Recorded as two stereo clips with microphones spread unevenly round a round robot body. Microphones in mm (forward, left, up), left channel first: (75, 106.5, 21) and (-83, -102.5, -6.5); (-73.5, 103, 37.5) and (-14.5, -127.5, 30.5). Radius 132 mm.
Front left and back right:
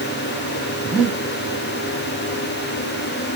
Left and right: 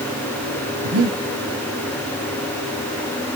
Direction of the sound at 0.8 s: 40° right.